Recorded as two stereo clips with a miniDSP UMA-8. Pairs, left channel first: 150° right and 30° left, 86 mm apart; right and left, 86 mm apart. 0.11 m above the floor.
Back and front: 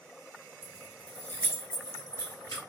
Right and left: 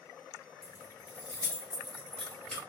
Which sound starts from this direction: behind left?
Keys jangling, at 0.6 s.